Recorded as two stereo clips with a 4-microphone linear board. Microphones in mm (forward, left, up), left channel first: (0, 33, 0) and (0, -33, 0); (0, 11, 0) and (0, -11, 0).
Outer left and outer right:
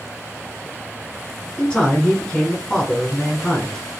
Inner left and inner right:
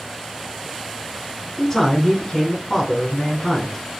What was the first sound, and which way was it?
A man speaking, 15° left (ahead or behind).